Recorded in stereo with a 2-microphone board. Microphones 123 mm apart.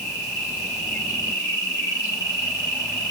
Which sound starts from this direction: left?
An insect, at 0.0 s.